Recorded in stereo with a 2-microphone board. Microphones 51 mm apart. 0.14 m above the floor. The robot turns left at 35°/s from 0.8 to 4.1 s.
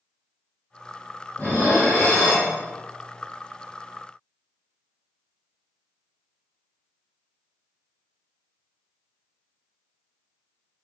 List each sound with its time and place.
1.4 s dishes clattering: 130° left, 1.8 m; by 2.5 s 90° left, 1.8 m